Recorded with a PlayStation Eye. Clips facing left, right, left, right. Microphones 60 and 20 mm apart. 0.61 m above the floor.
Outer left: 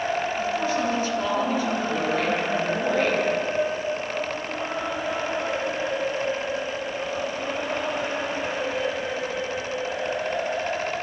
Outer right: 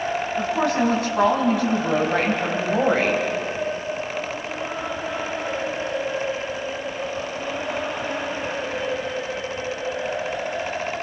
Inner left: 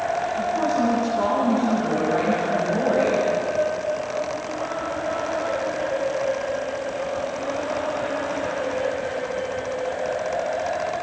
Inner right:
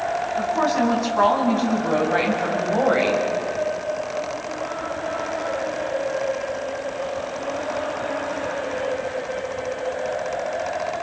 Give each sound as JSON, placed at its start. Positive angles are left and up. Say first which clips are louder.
{"t": 0.4, "sound": "a woman speaking", "louder": "outer right 3 dB, inner right 3 dB", "side_deg": -75, "distance_m": 5.5}